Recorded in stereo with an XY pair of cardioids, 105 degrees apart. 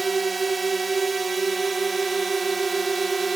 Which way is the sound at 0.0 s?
20° right.